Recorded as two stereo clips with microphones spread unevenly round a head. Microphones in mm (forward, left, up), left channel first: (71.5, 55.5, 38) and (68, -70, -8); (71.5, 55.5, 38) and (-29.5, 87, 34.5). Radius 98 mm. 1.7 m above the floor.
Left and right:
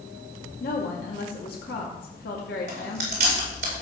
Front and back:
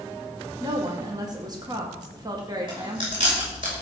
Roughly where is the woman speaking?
Left.